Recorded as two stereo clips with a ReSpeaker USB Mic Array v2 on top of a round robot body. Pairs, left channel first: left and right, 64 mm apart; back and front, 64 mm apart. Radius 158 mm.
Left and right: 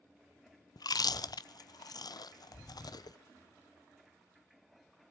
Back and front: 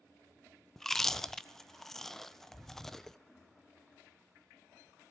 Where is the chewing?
95° left, 0.6 m.